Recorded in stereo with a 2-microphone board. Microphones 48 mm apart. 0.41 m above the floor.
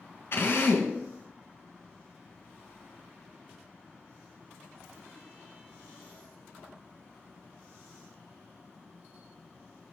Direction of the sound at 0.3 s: 60° left (ahead or behind).